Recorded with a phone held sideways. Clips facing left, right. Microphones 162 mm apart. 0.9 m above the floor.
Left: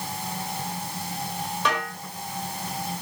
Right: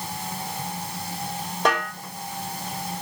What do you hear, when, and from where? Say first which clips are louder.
1.6 s a snare drum: right 5 dB; 45° right (ahead or behind), 4.5 m